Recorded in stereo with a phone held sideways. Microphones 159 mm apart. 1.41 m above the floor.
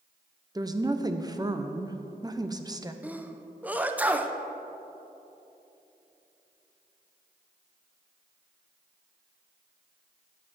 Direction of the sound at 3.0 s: 10° right (ahead or behind).